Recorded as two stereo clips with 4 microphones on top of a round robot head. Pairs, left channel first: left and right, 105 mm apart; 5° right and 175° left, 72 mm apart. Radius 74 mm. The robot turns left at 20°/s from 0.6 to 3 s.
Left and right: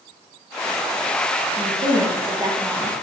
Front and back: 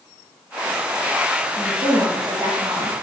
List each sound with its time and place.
1.6 s a woman speaking: 125° right, 1.3 m; by 2.9 s 150° right, 1.3 m